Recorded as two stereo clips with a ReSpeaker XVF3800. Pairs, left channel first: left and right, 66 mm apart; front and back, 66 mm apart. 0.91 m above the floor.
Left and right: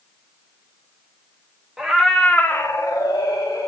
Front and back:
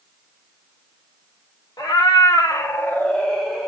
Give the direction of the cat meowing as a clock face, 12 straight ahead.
12 o'clock.